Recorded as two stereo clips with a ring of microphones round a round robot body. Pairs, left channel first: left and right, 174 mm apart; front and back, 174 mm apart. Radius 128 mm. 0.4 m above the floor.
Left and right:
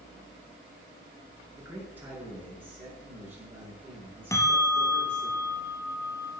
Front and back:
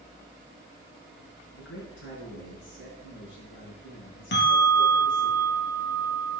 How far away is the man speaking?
About 6.5 m.